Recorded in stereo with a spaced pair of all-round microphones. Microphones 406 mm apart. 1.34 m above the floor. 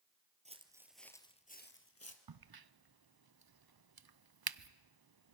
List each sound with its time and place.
0.5 s footsteps: 15° right (ahead or behind), 1.6 m; by 2.2 s 40° left (ahead or behind), 1.7 m
2.3 s a crack: 65° right (ahead or behind), 0.6 m